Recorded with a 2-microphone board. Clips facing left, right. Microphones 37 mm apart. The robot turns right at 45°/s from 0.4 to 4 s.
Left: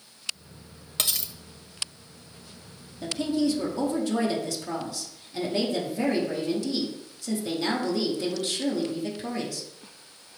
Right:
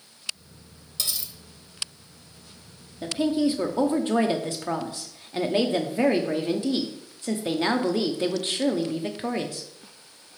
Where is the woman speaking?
150° right, 0.8 m; by 9.6 s 105° right, 0.8 m.